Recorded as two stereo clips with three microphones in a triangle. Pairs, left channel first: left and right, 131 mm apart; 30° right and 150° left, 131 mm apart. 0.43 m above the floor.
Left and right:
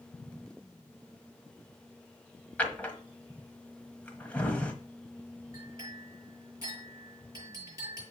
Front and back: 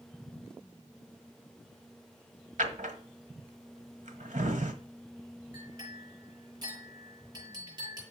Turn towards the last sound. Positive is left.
turn(degrees=-155)